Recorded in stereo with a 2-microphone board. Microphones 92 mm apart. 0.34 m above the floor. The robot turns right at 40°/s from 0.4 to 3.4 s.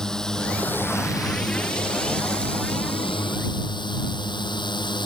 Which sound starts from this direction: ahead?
A drone, at 0.0 s.